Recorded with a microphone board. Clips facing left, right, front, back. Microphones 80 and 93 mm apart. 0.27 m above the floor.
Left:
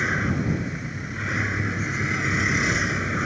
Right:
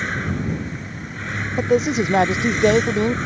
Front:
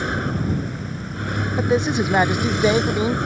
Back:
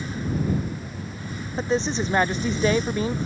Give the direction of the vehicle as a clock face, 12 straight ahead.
12 o'clock.